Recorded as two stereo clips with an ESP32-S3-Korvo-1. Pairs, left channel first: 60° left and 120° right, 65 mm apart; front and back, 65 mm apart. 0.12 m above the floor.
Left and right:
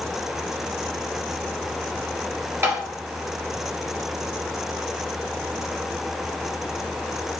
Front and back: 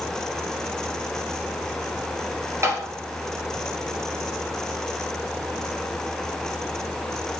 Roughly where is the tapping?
Behind right.